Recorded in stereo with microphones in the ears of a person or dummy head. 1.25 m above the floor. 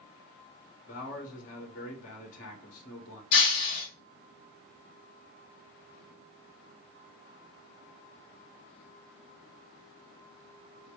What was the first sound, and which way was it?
A man speaking, 50° left (ahead or behind).